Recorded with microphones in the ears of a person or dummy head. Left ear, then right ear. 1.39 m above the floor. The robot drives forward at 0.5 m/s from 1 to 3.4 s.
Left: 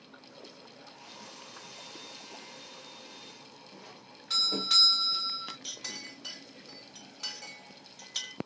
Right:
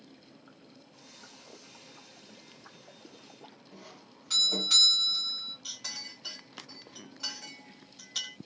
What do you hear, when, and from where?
3.7 s a doorbell: 5° left (ahead or behind), 2 m
5.6 s a clink: 15° left (ahead or behind), 1.8 m